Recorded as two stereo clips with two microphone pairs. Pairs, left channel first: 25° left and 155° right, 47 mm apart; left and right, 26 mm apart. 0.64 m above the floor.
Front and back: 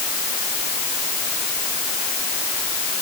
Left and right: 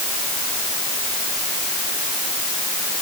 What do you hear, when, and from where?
Only background noise.